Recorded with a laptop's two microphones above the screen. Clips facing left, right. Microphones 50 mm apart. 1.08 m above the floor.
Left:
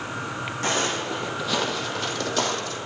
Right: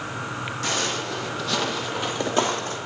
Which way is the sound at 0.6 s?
40° left (ahead or behind).